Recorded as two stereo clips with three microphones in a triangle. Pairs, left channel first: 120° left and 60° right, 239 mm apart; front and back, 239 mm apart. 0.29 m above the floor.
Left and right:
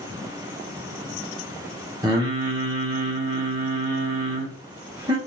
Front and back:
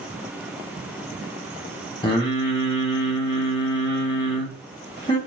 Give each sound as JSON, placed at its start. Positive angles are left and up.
{"t": 2.0, "sound": "singing", "azimuth_deg": -20, "distance_m": 1.1}